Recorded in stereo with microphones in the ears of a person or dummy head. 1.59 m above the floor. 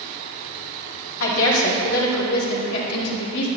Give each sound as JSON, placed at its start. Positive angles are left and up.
{"t": 1.2, "sound": "a woman speaking", "side_deg": 65, "distance_m": 1.8}